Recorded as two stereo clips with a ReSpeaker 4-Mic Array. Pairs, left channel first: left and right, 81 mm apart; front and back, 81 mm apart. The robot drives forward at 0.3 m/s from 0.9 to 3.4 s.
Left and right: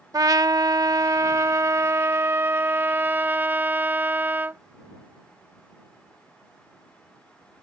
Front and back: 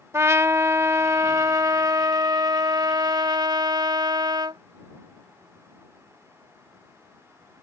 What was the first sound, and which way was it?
A trumpet, 125° right.